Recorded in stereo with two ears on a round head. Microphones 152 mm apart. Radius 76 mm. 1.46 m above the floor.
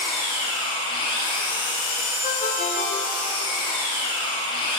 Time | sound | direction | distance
0.0 | an engine running | 30° left (ahead or behind) | 0.9 m
2.2 | a ringtone | 45° left (ahead or behind) | 0.7 m